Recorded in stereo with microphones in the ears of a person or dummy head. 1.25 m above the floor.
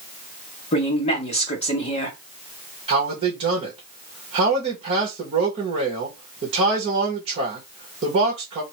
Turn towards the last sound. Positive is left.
turn(degrees=-35)  # may be behind; listen again after turning